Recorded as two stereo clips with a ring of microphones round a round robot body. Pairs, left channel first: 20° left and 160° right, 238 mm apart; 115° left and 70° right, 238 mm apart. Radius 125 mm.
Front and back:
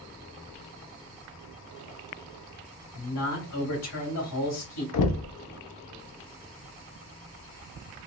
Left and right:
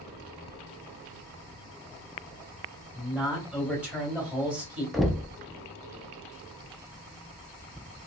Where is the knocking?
20° left, 0.6 m.